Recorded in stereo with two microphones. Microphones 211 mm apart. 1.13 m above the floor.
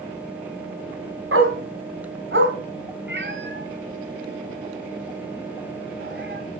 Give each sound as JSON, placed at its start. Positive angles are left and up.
{"t": 1.3, "sound": "a dog barking", "side_deg": -80, "distance_m": 3.0}
{"t": 3.1, "sound": "a cat meowing", "side_deg": -60, "distance_m": 3.0}